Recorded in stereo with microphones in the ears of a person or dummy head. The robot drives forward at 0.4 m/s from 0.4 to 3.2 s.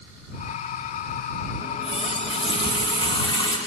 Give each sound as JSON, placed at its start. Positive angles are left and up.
{"t": 1.6, "sound": "a running tap", "side_deg": 40, "distance_m": 1.7}